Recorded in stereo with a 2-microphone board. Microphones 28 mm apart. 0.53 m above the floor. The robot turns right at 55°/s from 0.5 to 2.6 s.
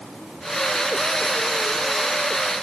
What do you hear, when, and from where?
Only background noise.